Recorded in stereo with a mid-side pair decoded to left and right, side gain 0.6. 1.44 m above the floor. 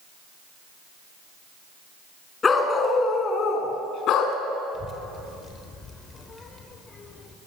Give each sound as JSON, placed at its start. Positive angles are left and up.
{"t": 2.4, "sound": "a dog barking", "azimuth_deg": 30, "distance_m": 4.5}
{"t": 4.7, "sound": "a child speaking", "azimuth_deg": 25, "distance_m": 4.0}